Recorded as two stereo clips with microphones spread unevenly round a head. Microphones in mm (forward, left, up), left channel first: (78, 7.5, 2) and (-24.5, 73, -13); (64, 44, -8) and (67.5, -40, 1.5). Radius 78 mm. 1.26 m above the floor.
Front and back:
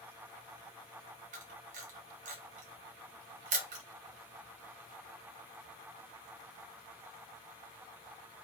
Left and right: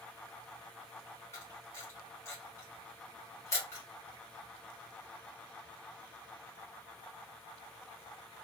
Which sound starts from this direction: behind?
A camera shutter, at 1.3 s.